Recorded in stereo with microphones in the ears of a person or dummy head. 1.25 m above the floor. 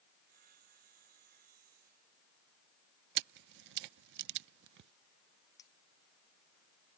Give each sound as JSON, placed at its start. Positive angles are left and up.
{"t": 0.2, "sound": "sawing", "side_deg": -50}
{"t": 3.1, "sound": "a camera shutter", "side_deg": -60}
{"t": 5.6, "sound": "a clink", "side_deg": 15}